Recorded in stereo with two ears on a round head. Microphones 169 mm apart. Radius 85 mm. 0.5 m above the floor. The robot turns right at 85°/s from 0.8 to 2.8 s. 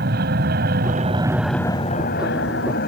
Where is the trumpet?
No trumpet in this recording.